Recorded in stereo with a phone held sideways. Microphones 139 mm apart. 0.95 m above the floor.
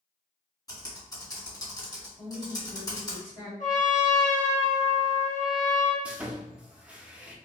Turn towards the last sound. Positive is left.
turn(degrees=-5)  # may be behind; listen again after turning